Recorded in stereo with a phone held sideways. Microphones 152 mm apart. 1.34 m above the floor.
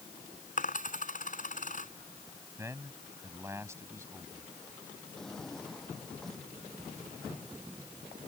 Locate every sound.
0.6 s a dropped coin: 60° left (ahead or behind)
2.6 s a man speaking: 15° right (ahead or behind)
5.2 s a drawer: 5° left (ahead or behind)